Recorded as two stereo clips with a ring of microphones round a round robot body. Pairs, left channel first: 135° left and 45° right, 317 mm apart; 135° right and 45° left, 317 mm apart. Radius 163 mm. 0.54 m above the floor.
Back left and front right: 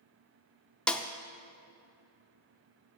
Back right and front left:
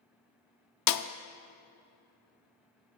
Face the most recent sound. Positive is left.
turn(degrees=-140)